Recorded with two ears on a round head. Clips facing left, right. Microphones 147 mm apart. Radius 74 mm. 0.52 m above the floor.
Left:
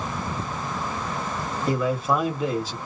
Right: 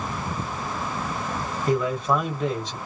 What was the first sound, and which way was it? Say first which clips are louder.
A man speaking: right 1 dB; 5° left (ahead or behind).